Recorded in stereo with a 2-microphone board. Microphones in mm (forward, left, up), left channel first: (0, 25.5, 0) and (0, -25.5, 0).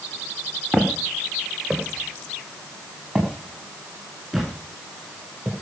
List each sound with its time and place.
0.7 s footsteps: 25° right (ahead or behind), 3 m; by 5.5 s 10° right (ahead or behind), 7 m